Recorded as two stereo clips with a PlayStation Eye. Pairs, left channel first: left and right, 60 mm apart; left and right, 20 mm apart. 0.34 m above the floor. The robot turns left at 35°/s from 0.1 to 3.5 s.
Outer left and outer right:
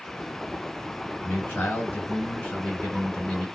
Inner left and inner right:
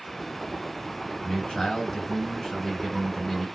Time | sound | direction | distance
1.2 | a man speaking | 85° left | 1.7 m